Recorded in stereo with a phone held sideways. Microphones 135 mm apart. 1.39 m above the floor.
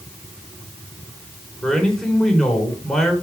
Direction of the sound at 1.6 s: 5° left (ahead or behind).